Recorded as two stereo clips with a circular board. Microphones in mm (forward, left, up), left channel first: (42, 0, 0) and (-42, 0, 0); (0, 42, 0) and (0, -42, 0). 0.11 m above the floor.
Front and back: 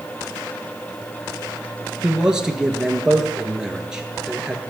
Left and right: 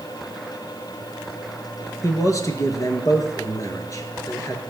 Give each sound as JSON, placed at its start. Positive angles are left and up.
{"t": 2.0, "sound": "a man speaking", "azimuth_deg": 100, "distance_m": 1.6}